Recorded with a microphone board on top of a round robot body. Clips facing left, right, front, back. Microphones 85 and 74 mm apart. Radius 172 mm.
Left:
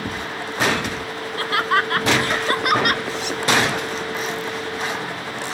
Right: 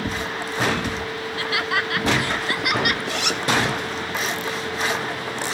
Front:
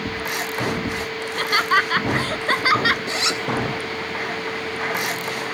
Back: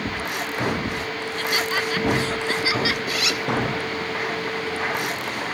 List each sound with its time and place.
1.2 s laughter: 40° left; by 3.0 s 45° left
3.1 s a zipper: 65° right